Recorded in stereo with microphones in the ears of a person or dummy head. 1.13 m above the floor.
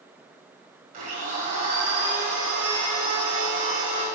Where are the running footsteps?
I don't hear running footsteps.